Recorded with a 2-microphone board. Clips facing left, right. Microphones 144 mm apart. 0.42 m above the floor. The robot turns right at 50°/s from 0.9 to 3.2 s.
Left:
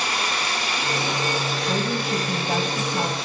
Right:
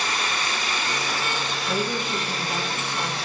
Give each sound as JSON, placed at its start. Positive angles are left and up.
{"t": 0.0, "sound": "running water", "azimuth_deg": 145, "distance_m": 8.0}
{"t": 1.7, "sound": "a woman speaking", "azimuth_deg": 20, "distance_m": 3.0}